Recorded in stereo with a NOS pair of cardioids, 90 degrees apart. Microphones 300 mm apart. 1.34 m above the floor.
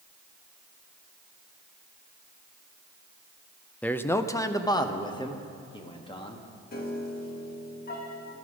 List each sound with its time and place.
3.8 s a man speaking: 5° left, 0.6 m; by 6.5 s 15° left, 2 m
6.7 s a piano: 30° left, 1.9 m